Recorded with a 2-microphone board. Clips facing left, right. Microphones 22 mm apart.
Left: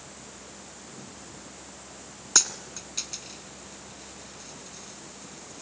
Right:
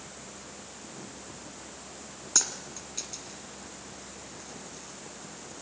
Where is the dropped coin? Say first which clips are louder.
Left 4 dB; 30° left (ahead or behind), 1.2 m.